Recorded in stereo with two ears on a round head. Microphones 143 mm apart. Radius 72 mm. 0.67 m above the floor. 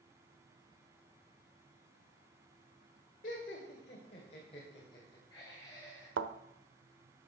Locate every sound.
3.2 s laughter: 55° left (ahead or behind), 2.5 m; by 6.1 s 20° left (ahead or behind), 3.5 m
6.2 s a thud: 85° right, 1.0 m